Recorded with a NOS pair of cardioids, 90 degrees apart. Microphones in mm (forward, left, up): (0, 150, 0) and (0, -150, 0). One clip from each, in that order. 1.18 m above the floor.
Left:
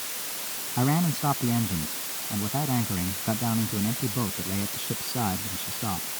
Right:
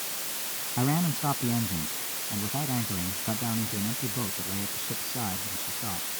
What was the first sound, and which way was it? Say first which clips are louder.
A man speaking: left 3 dB; 15° left.